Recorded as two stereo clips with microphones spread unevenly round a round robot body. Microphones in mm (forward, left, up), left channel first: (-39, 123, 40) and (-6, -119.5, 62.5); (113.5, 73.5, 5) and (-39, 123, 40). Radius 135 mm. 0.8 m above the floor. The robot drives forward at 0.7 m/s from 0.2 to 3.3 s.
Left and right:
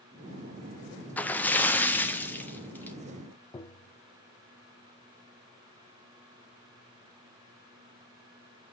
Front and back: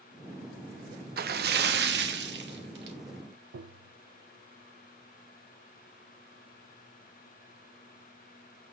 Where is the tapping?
175° left, 0.7 m.